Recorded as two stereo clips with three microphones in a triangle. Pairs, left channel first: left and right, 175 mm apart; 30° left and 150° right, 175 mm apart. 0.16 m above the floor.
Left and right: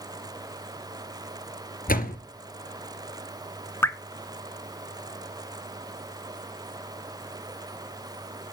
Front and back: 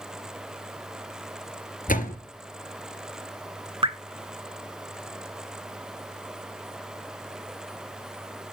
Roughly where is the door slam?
Ahead left.